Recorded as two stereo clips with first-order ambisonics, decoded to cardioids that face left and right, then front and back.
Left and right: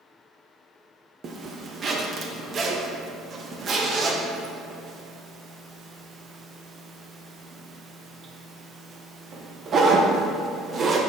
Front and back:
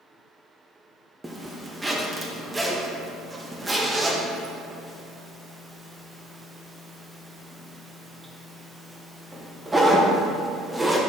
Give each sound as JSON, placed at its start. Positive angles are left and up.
{"t": 1.2, "sound": "a zipper", "azimuth_deg": -110, "distance_m": 0.6}